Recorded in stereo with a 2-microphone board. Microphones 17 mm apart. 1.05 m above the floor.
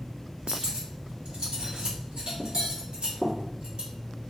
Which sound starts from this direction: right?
Cutlery clinking, at 0.5 s.